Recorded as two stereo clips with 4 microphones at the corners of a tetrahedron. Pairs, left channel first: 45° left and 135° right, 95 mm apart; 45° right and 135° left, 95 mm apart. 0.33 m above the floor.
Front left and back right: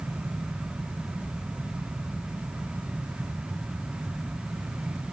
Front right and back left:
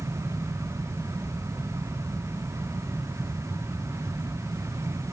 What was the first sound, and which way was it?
Only background noise.